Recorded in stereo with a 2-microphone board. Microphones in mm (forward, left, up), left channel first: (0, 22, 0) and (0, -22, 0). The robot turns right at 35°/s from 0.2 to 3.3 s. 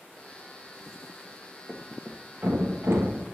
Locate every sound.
1.7 s a thud: 15° right (ahead or behind), 1.7 m; by 3.2 s 70° right (ahead or behind), 1.7 m